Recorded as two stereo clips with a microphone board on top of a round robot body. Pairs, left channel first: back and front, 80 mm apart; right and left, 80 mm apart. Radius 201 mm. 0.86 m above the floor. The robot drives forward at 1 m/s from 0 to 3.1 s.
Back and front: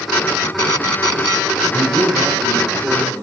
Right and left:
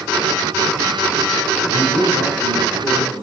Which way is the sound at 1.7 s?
100° right.